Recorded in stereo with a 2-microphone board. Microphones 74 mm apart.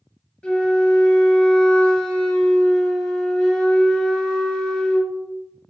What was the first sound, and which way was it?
A flute, 15° left (ahead or behind).